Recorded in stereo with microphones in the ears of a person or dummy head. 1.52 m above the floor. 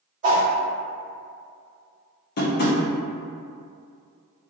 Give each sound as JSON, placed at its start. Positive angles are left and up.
{"t": 0.2, "sound": "a whoosh", "side_deg": -30, "distance_m": 1.0}
{"t": 2.4, "sound": "tapping", "side_deg": 50, "distance_m": 0.6}